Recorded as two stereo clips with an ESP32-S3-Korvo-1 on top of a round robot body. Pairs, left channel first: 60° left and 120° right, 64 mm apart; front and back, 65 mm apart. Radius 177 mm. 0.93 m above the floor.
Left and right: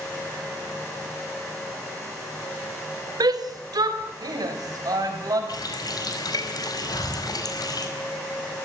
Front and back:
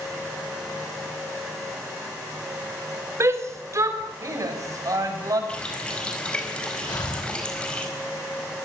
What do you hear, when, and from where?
3.2 s a shout: 130° right, 4 m; by 5.4 s 145° right, 6 m
5.5 s a running tap: 75° left, 4.5 m
6.9 s breathing: 35° left, 6.5 m